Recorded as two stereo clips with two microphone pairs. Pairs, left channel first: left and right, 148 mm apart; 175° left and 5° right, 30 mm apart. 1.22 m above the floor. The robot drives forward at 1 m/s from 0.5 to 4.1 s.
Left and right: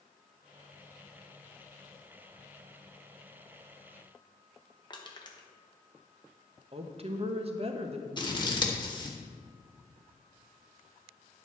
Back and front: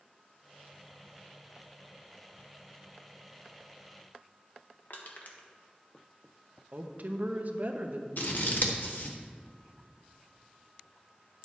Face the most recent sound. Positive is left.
turn(degrees=150)